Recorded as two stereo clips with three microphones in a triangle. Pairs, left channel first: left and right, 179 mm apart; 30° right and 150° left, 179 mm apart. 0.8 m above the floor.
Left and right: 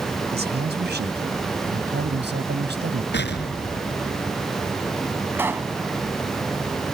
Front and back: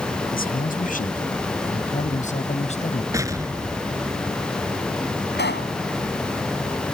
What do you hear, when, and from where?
0.3 s a man speaking: 65° right; by 3.0 s 80° right
3.1 s an explosion: 80° left
5.3 s a pop: 10° right